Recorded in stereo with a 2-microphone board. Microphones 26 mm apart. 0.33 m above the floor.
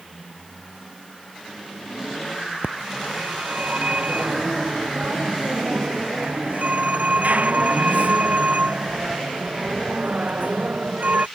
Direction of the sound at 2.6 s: 70° right (ahead or behind).